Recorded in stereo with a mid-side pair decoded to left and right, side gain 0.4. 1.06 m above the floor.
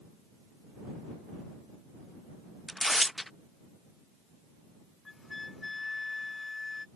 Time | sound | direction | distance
2.7 | tearing paper | 5° left | ?
5.0 | a flute | 30° left | ?